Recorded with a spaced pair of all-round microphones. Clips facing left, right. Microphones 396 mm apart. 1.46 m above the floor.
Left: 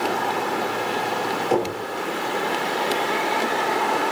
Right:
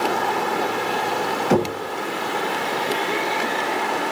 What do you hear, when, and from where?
1.5 s knocking: 85° right, 2 m